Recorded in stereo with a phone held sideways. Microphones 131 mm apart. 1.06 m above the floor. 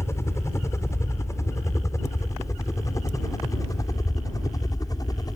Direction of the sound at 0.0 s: 20° left (ahead or behind).